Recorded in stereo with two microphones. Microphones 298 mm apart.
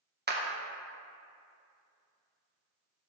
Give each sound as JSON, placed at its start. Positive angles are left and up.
{"t": 0.3, "sound": "a clap", "side_deg": -35, "distance_m": 0.7}